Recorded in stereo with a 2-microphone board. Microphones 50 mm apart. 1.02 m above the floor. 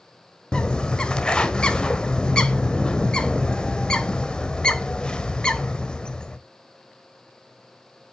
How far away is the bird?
About 1.3 m.